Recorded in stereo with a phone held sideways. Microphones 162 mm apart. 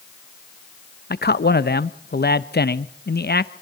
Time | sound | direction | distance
1.1 | a man speaking | 75° left (ahead or behind) | 0.9 m